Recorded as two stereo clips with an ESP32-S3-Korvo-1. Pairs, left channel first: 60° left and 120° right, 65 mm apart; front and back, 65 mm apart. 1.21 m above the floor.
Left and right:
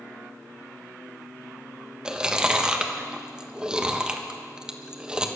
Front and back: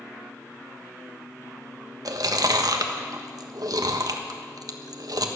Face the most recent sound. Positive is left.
turn(degrees=165)